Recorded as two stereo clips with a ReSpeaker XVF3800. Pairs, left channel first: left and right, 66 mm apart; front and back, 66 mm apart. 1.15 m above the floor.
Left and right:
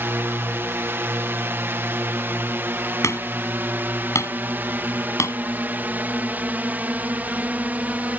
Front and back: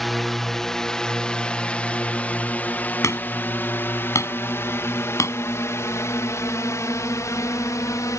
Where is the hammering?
45° left.